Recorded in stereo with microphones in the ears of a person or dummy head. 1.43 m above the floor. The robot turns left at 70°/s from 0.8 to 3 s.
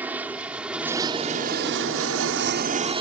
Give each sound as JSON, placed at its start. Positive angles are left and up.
{"t": 0.0, "sound": "an aircraft", "side_deg": -5}